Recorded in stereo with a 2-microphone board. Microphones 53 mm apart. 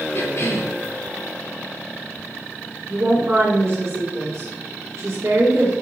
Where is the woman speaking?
55° right (ahead or behind), 2.5 m.